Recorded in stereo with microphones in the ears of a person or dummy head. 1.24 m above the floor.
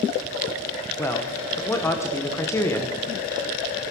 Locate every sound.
1.0 s a man speaking: 15° left (ahead or behind), 1.1 m